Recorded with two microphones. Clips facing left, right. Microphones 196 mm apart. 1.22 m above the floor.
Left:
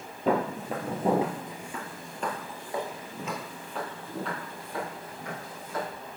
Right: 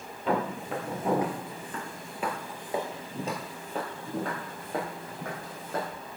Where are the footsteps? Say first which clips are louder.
Left 2 dB; 50° left (ahead or behind), 1.9 m; by 5.9 s 65° right (ahead or behind), 3.5 m.